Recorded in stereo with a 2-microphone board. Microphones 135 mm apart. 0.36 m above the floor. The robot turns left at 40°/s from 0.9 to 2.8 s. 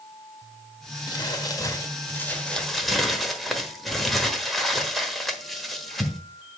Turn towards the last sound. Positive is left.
turn(degrees=0)